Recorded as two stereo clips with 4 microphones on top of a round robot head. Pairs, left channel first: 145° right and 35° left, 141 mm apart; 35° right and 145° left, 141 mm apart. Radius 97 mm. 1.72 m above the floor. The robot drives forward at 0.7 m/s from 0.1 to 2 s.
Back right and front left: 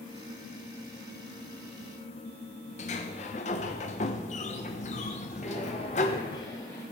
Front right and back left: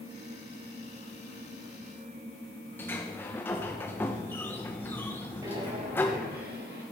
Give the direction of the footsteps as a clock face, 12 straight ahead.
5 o'clock.